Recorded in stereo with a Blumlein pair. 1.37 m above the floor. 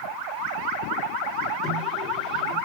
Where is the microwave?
Straight ahead, 3.5 m.